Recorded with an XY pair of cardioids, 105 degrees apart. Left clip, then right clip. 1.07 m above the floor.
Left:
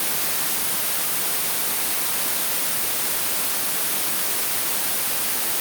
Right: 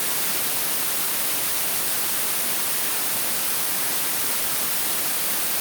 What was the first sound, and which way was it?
Only background noise.